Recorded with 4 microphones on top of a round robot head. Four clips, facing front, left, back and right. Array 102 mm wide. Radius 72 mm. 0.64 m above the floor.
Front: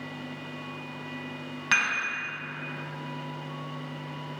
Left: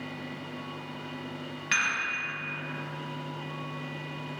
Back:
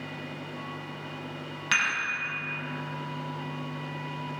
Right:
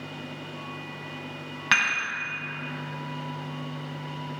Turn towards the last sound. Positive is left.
turn(degrees=-65)